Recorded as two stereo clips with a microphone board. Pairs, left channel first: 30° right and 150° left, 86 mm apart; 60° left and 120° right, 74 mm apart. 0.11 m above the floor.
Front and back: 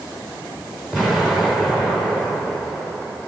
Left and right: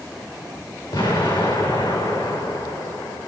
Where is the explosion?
70° left, 4 m.